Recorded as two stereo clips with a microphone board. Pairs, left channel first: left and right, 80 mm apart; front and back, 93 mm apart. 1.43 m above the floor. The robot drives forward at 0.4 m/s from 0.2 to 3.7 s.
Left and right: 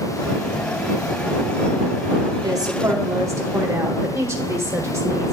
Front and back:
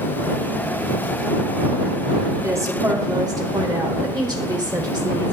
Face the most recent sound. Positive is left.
turn(degrees=-140)